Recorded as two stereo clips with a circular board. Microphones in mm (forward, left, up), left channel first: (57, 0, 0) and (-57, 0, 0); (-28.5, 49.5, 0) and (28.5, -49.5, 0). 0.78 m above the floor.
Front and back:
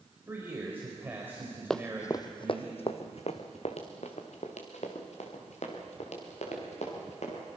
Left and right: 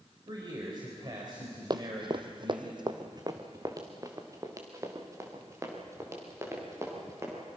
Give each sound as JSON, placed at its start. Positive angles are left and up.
{"t": 0.3, "sound": "a man speaking", "azimuth_deg": -110, "distance_m": 4.0}
{"t": 1.7, "sound": "running footsteps", "azimuth_deg": -85, "distance_m": 1.0}